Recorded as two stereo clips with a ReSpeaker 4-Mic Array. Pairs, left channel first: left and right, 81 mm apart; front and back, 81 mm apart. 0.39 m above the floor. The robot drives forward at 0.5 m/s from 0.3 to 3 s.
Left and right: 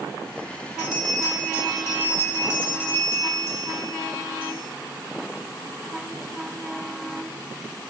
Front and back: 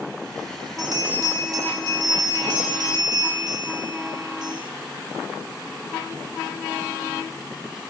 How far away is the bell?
About 3 m.